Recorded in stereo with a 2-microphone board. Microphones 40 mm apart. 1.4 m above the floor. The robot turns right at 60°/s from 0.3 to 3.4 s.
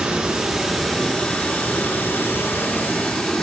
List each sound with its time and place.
0.0 s running water: 20° right, 1.6 m; by 3.4 s 165° left, 1.6 m